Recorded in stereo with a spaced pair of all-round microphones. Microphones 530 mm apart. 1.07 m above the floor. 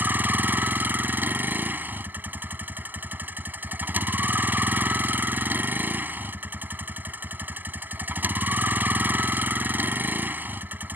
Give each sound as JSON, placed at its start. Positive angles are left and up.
{"t": 0.0, "sound": "a vehicle", "side_deg": -5}